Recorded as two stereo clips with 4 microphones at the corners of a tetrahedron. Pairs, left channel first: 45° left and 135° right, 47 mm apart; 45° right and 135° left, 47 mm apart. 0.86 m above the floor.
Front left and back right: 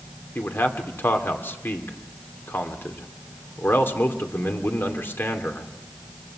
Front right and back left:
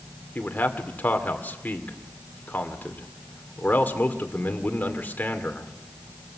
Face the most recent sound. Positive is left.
turn(degrees=5)